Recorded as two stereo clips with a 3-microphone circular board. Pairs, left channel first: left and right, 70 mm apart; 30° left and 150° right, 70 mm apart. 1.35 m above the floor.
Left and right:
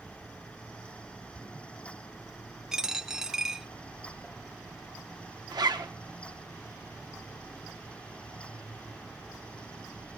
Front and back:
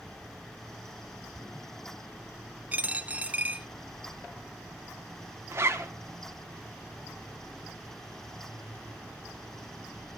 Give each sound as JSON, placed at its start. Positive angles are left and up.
{"t": 2.7, "sound": "a dropped coin", "azimuth_deg": -155, "distance_m": 0.6}
{"t": 5.5, "sound": "a zipper", "azimuth_deg": -95, "distance_m": 1.2}